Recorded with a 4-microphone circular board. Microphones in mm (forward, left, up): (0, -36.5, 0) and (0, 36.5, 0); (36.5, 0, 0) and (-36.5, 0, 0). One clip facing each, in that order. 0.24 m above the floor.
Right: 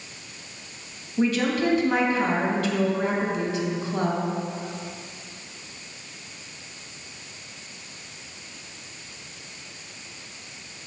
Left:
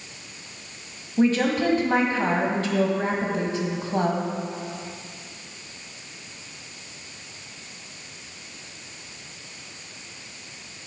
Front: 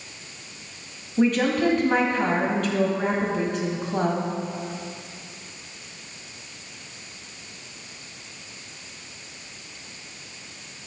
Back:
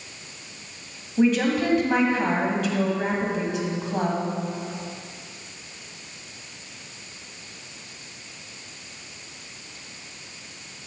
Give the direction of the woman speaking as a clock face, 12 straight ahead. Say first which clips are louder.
Left 2 dB, even; 9 o'clock.